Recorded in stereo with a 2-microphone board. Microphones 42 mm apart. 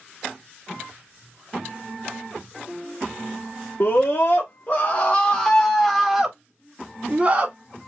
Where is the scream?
55° left (ahead or behind), 1.5 m; by 7.5 s 30° right (ahead or behind), 1.9 m.